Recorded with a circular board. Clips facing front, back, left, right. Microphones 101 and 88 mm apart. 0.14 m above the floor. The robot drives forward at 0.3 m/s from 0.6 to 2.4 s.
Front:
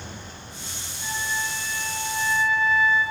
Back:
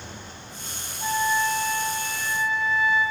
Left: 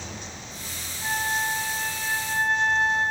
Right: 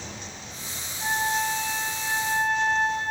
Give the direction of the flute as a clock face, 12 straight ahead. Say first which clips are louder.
Back 7 dB, right 1 dB; 5 o'clock.